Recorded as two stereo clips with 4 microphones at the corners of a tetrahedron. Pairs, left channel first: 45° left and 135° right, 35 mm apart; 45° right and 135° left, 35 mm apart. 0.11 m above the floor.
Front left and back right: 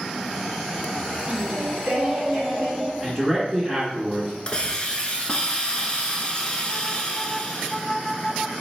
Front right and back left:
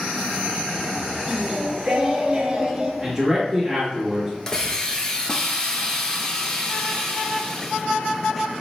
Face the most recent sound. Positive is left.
turn(degrees=10)